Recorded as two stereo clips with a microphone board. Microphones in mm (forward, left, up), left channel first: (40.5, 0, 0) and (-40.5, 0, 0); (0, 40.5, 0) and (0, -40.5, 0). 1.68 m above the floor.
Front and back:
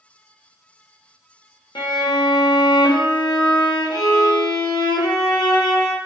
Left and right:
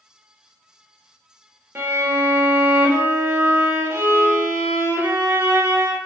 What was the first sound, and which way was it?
A violin, 30° right.